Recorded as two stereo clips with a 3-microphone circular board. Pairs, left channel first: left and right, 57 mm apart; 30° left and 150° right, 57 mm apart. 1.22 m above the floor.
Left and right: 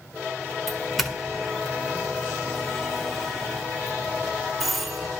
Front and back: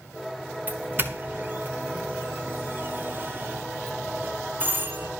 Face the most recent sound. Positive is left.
turn(degrees=180)